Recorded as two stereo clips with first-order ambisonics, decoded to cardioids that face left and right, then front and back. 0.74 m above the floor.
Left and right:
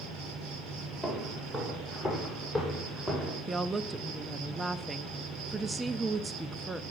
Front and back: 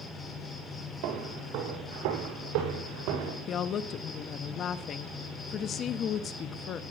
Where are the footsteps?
170° right, 8.5 m; by 3.4 s straight behind, 8 m.